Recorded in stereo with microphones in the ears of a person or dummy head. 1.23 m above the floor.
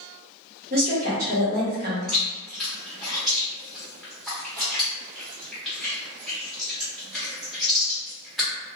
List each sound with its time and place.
0.7 s a woman speaking: 45° right (ahead or behind), 1.3 m
2.1 s chewing: 5° right (ahead or behind), 1.1 m